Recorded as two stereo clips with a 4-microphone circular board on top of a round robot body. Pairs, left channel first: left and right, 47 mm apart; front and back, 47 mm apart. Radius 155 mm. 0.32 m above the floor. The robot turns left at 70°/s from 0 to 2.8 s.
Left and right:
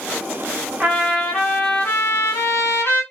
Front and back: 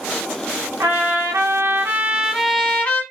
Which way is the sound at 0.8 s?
155° right.